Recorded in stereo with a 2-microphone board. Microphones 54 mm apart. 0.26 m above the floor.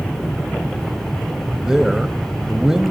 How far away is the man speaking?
About 1.0 m.